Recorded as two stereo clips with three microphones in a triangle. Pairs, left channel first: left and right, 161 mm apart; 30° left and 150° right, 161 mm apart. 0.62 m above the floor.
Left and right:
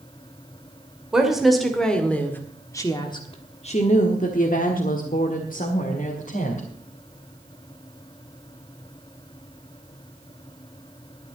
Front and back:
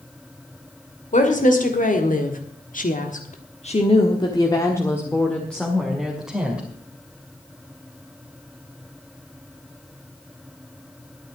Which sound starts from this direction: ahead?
A woman speaking, at 1.1 s.